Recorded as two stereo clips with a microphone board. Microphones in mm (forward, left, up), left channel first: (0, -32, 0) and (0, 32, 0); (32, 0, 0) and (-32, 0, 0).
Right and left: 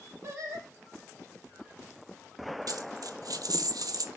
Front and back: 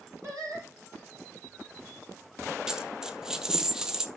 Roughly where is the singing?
Behind left.